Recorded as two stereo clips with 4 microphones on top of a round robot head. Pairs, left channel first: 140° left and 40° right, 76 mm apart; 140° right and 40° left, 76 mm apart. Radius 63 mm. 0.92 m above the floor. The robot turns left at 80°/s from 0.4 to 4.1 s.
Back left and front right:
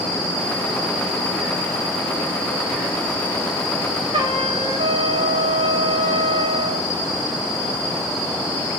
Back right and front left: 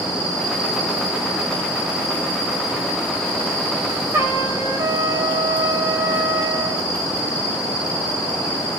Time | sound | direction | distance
4.1 | a trumpet | 20° right | 5 m